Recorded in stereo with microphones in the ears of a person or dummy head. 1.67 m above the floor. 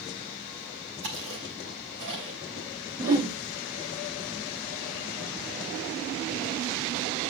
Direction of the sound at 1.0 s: 75° right (ahead or behind).